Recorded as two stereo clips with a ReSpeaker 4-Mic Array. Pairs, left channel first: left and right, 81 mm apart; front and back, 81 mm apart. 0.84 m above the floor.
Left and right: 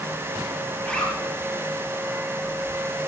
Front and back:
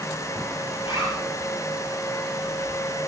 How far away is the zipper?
About 4.5 m.